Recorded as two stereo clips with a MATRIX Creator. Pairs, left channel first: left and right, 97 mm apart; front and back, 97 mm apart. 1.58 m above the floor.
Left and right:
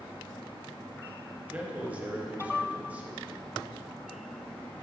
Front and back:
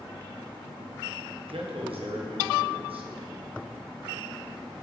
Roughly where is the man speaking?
Behind.